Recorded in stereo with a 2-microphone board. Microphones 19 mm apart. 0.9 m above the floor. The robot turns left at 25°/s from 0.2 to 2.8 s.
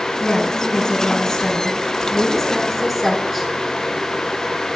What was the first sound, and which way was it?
A woman speaking, 55° left.